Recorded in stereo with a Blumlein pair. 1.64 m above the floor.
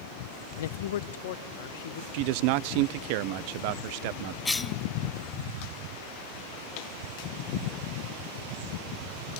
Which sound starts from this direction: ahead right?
A man speaking, at 2.1 s.